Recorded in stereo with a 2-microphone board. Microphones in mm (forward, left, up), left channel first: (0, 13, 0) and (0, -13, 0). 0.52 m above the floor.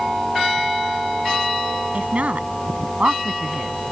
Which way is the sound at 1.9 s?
60° right (ahead or behind).